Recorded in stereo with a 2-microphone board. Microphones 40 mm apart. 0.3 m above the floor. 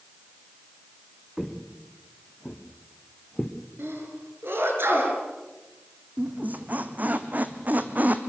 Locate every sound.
1.4 s footsteps: 10° right (ahead or behind), 2.5 m; by 3.6 s 20° left (ahead or behind), 2.5 m
3.8 s a sneeze: 65° right (ahead or behind), 6 m
6.2 s a squeak: 50° right (ahead or behind), 1.4 m